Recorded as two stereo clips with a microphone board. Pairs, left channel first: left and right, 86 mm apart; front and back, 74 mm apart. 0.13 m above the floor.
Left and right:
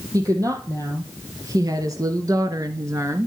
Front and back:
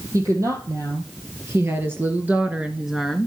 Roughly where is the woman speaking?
Behind right.